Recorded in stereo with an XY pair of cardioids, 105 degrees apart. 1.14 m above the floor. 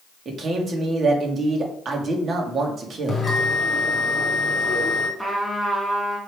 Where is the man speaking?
40° right, 2.5 m.